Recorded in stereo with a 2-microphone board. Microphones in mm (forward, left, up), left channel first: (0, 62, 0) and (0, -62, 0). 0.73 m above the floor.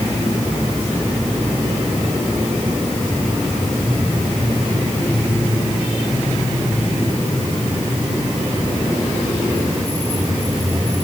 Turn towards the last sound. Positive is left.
No sound to turn to.